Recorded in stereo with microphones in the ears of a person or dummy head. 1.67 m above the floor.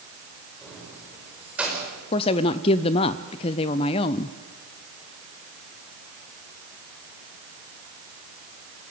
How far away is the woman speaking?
About 0.6 m.